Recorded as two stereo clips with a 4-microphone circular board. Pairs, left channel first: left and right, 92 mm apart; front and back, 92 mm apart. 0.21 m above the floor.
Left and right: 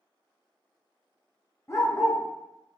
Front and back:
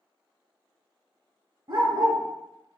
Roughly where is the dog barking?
Behind left.